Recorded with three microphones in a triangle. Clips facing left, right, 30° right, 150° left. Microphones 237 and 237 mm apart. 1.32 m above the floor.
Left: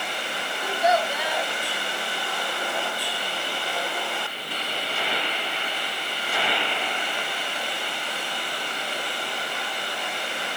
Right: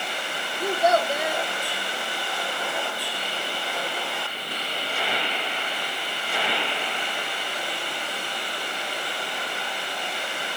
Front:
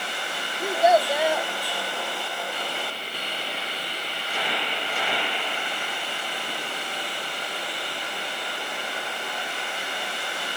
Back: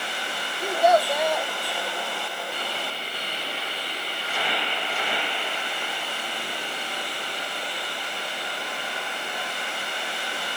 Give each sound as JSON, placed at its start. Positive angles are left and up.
{"t": 0.6, "sound": "a child speaking", "azimuth_deg": -115, "distance_m": 0.9}